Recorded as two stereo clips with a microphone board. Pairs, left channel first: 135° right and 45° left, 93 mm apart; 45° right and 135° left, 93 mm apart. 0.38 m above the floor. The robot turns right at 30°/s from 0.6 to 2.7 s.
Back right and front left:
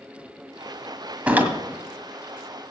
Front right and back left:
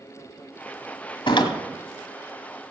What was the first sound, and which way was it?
A door slam, 30° right.